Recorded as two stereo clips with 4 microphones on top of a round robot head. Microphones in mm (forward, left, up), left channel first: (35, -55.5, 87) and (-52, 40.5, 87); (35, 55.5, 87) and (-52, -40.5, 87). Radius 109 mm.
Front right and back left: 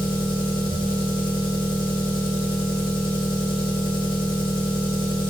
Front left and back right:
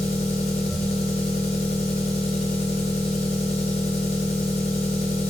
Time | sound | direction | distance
0.0 | an engine running | 5° left | 2 m